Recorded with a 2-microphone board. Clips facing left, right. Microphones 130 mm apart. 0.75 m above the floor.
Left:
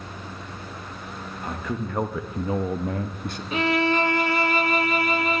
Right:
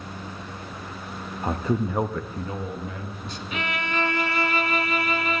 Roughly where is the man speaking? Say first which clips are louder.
Right 6 dB; right.